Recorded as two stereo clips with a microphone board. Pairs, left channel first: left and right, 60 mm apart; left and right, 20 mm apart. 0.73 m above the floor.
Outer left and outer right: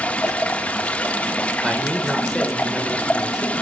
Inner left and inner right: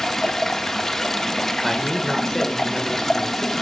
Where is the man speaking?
5° right (ahead or behind), 3 m.